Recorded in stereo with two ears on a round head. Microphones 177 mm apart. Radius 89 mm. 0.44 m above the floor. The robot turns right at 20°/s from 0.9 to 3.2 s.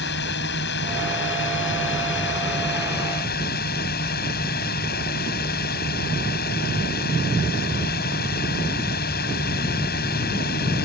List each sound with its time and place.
0.0 s a drone: 75° left; by 10.9 s 120° left